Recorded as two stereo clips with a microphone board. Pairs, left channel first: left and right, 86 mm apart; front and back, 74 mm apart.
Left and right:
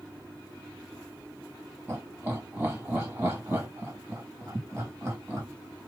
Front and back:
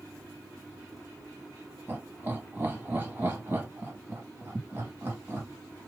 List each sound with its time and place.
1.9 s laughter: 135° right, 1.5 m